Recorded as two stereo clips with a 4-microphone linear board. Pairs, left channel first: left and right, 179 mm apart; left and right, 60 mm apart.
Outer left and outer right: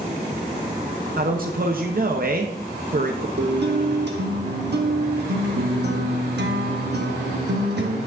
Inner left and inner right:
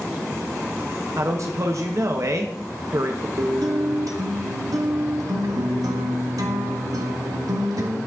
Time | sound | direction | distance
1.2 | a man speaking | 55° right (ahead or behind) | 0.6 m
3.4 | a guitar | 75° right (ahead or behind) | 1.0 m